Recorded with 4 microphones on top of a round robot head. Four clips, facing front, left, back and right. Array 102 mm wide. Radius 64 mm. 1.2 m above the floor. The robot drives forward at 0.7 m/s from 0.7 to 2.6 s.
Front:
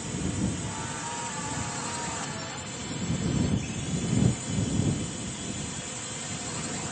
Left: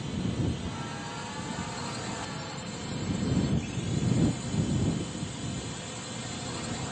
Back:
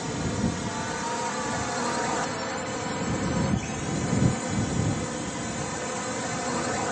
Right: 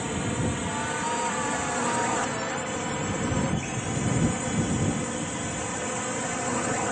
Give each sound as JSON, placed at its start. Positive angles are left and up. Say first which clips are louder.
{"t": 0.0, "sound": "a drone", "louder": "right 4 dB, back 3 dB", "azimuth_deg": -125}